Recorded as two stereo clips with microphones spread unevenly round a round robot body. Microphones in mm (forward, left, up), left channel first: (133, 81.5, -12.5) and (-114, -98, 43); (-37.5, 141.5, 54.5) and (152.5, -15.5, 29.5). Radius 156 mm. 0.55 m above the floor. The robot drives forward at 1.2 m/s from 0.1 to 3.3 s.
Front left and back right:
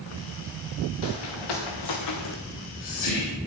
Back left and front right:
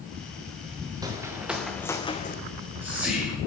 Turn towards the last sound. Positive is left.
turn(degrees=50)